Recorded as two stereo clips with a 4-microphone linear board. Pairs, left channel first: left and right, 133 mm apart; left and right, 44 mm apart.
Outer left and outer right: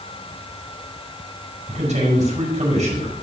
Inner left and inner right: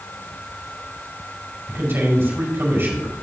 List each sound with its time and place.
1.7 s a man speaking: 60° right (ahead or behind), 5 m